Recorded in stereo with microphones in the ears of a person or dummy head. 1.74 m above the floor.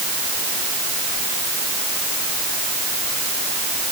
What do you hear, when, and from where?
Only background noise.